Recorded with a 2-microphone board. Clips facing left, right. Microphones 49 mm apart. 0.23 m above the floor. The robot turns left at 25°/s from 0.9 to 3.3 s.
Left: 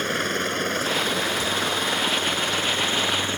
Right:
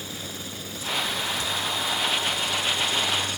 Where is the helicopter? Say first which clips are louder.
Left 12 dB; 65° left (ahead or behind); by 3.4 s 35° left (ahead or behind).